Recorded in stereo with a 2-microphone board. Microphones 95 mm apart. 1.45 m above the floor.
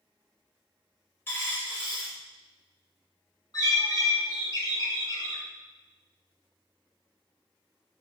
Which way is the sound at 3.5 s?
40° left (ahead or behind).